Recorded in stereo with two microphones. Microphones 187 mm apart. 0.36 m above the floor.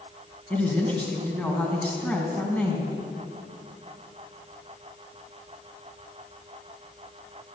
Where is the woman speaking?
10° left (ahead or behind), 3 m.